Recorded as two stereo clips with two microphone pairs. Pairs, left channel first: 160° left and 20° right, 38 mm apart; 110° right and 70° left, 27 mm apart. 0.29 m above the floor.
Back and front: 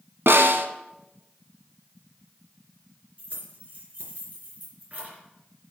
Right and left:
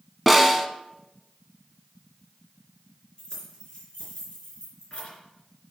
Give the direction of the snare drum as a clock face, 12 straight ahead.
1 o'clock.